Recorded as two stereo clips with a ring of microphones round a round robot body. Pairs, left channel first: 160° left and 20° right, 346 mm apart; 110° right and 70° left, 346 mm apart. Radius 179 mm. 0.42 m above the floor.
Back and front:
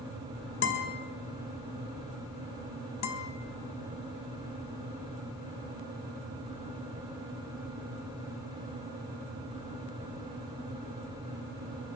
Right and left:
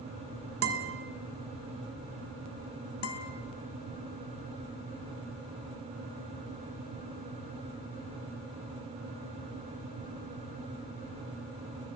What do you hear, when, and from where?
0.6 s a guitar: 110° left, 2.5 m
3.0 s a guitar: 160° right, 2 m